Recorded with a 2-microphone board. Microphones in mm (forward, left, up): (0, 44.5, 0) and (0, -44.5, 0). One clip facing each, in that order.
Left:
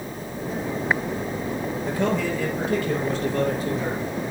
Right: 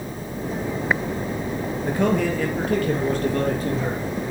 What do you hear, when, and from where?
1.8 s a man speaking: 55° right (ahead or behind), 3 m; by 4.0 s 50° right (ahead or behind), 4.5 m